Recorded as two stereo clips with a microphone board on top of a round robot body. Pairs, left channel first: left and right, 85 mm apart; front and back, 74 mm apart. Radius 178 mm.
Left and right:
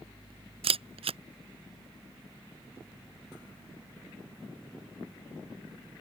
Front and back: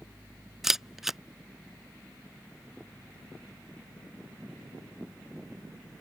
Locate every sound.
0.6 s a camera shutter: 95° right